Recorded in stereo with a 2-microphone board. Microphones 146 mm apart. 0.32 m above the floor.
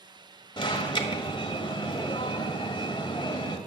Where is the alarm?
35° left (ahead or behind), 1.4 m.